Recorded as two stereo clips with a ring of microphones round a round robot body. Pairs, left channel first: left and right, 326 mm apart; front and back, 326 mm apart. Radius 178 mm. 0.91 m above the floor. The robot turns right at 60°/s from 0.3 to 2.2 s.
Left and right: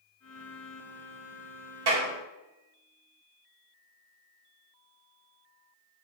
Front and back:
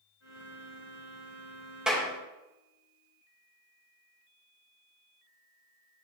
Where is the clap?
90° right, 4 m; by 2.1 s 80° right, 4 m.